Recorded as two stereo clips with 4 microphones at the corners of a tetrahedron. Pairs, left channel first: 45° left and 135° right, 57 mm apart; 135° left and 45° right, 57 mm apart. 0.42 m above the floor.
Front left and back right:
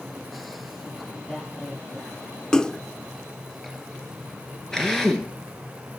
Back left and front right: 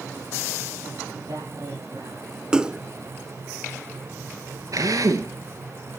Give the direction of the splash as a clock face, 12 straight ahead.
12 o'clock.